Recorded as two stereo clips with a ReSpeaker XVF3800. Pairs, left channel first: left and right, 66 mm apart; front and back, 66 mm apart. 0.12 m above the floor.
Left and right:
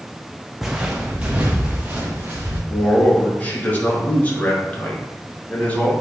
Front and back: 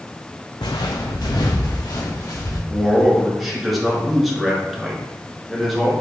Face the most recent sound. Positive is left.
turn(degrees=95)